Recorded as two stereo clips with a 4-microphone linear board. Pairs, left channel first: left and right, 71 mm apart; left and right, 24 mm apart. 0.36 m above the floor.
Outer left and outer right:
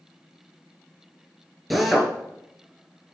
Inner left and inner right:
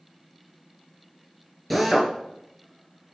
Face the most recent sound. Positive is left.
turn(degrees=0)  # may be behind; listen again after turning